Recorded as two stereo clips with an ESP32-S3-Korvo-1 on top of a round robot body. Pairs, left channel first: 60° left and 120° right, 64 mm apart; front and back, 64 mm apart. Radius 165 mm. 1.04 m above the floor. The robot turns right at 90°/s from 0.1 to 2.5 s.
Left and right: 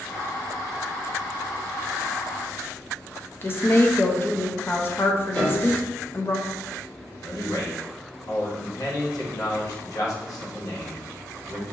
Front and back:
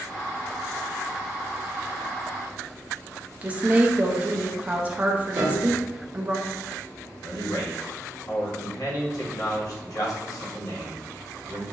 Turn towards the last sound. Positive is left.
turn(degrees=30)